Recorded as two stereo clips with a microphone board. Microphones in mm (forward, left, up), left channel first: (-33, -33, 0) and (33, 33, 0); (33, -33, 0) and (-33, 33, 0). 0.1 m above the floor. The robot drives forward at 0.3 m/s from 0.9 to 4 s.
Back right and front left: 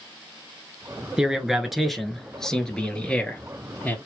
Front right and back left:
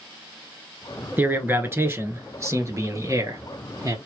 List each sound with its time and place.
1.2 s a man speaking: 115° left, 1.1 m; by 4.0 s 160° left, 1.5 m